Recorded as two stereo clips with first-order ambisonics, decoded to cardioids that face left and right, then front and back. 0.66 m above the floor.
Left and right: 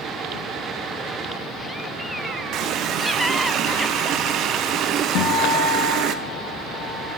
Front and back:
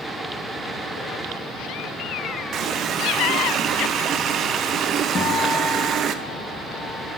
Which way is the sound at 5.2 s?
65° left.